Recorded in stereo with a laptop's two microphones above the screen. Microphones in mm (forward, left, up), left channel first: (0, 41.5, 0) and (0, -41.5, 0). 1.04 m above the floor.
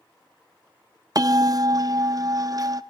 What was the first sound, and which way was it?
A bell, 45° right (ahead or behind).